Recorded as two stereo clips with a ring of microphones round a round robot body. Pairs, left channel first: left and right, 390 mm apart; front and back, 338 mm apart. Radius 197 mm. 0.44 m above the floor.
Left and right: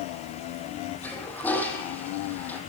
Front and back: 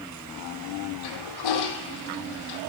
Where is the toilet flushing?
5° left, 5 m.